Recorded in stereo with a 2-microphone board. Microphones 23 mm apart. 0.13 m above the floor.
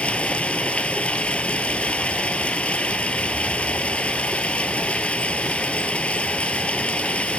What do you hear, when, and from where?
0.0 s running water: 70° left (ahead or behind), 0.8 m